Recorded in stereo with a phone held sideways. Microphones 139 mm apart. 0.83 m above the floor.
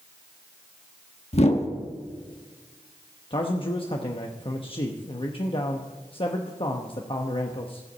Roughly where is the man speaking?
Left.